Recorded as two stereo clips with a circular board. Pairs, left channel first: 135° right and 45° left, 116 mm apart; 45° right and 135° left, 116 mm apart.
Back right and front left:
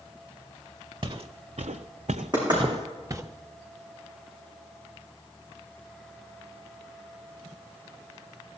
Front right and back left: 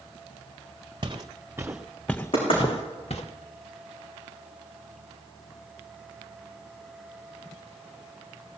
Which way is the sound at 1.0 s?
85° left.